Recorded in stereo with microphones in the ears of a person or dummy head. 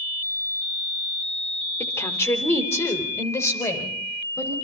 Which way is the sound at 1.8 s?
15° left (ahead or behind).